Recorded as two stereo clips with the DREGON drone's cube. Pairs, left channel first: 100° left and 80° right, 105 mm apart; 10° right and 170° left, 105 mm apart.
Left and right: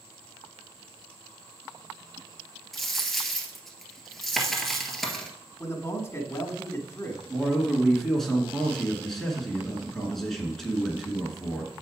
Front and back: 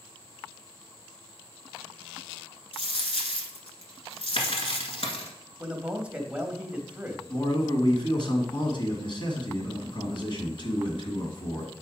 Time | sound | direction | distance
2.7 | a dropped coin | 10° left | 1.4 m
5.6 | a man speaking | 105° left | 1.1 m
7.3 | a man speaking | 15° left | 2.5 m